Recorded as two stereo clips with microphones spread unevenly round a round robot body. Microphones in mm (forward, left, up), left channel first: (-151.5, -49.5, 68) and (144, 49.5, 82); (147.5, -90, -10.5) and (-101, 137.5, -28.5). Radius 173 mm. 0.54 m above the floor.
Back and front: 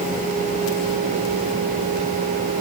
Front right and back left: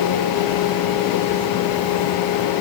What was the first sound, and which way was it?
Only background noise.